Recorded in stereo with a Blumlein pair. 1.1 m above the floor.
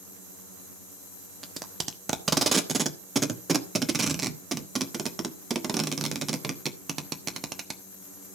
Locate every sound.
1.4 s tape being pulled: 15° right, 1.1 m